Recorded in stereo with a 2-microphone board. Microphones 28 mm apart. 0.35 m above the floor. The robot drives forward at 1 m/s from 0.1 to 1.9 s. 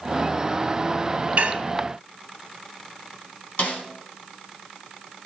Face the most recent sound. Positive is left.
turn(degrees=60)  # may be behind; listen again after turning